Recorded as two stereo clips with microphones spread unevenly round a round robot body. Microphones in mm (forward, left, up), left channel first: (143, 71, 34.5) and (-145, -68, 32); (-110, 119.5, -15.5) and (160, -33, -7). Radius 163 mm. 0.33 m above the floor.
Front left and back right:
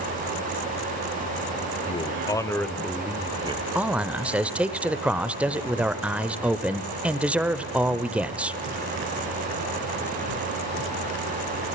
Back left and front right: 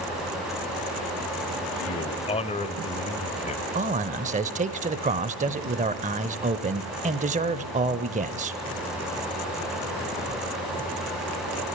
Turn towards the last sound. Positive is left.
turn(degrees=-75)